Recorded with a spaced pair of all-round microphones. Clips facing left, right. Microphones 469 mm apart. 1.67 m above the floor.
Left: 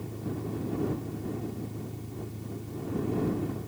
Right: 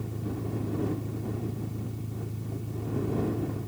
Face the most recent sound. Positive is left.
turn(degrees=-25)  # may be behind; listen again after turning